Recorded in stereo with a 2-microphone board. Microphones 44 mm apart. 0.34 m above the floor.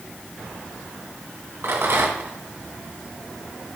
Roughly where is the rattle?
Right.